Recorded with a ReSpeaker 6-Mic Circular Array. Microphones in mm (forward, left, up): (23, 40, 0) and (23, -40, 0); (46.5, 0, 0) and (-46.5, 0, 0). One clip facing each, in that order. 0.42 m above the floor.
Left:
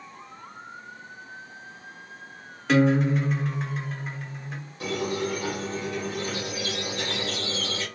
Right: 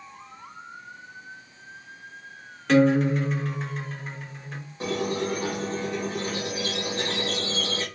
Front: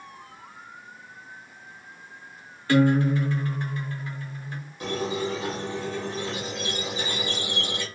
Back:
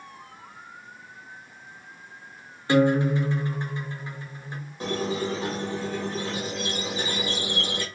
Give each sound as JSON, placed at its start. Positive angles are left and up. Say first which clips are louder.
{"t": 2.7, "sound": "a guitar", "louder": "right 2 dB, even", "azimuth_deg": 175, "distance_m": 0.7}
{"t": 4.8, "sound": "a squeak", "louder": "right 1 dB, even", "azimuth_deg": -140, "distance_m": 1.2}